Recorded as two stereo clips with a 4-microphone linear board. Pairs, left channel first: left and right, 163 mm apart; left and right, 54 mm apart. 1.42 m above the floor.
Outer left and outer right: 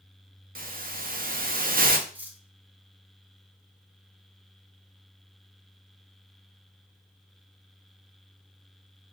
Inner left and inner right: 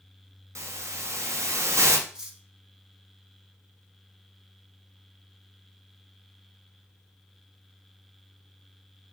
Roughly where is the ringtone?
No ringtone in this recording.